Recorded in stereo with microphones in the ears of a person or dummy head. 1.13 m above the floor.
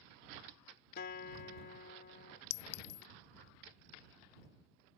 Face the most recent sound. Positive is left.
turn(degrees=60)  # may be behind; listen again after turning